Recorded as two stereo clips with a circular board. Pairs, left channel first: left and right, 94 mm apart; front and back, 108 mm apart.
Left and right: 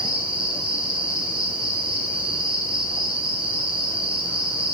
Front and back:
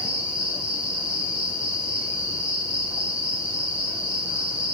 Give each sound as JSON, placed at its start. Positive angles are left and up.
{"t": 0.0, "sound": "an insect", "azimuth_deg": -100, "distance_m": 1.9}